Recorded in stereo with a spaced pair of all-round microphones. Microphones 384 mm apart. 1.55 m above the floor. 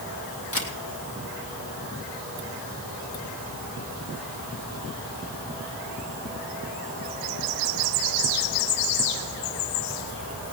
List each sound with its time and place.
0.5 s a camera shutter: 35° left (ahead or behind), 2.5 m